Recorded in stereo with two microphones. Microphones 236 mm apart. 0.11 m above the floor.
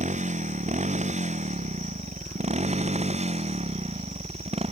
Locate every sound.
0.0 s a motorcycle: 30° right (ahead or behind); by 4.7 s 25° right (ahead or behind)